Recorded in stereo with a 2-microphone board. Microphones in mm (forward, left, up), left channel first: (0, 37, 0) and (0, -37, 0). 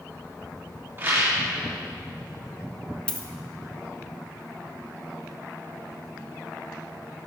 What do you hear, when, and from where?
1.0 s a rattle: 30° right (ahead or behind), 2.5 m
3.1 s a dropped coin: 15° left (ahead or behind), 0.8 m